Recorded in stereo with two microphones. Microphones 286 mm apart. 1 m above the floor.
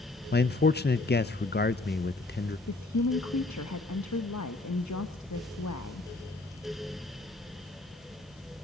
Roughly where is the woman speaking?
Left.